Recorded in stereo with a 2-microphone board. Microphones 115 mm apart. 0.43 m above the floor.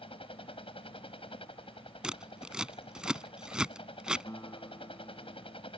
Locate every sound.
0.0 s a helicopter: 55° left (ahead or behind)
2.0 s scissors: 5° right (ahead or behind)
4.3 s a guitar: 25° left (ahead or behind)